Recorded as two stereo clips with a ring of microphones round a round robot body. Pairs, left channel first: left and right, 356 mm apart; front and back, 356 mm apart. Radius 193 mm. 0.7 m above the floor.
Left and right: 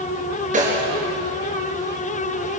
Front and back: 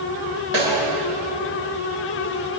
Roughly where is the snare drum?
Behind.